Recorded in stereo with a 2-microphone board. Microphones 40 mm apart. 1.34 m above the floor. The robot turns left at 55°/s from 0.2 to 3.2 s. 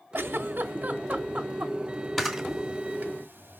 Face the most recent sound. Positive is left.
turn(degrees=-50)  # may be behind; listen again after turning